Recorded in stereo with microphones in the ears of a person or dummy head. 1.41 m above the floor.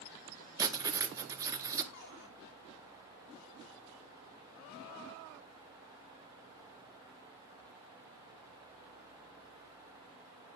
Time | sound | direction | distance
0.6 | writing | 20° right (ahead or behind) | 1.6 m
1.9 | a cupboard door | 65° left (ahead or behind) | 7.5 m